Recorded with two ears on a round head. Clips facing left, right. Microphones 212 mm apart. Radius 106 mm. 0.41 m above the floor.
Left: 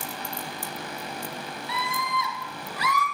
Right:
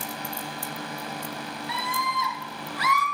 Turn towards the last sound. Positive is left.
turn(degrees=80)